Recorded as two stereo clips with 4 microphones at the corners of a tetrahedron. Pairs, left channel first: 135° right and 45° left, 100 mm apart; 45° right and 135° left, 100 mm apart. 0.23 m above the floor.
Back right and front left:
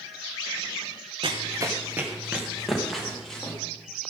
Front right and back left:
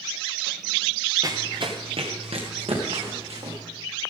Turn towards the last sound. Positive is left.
turn(degrees=140)